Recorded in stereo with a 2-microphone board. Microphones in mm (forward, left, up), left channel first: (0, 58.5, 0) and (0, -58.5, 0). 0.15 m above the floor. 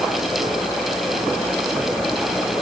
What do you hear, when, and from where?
Only background noise.